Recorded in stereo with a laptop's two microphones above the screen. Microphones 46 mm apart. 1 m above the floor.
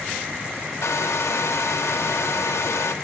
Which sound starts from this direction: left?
A hair dryer, at 0.8 s.